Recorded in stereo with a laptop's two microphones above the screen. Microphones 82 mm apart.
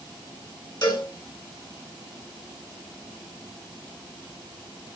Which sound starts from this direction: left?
A cowbell, at 0.8 s.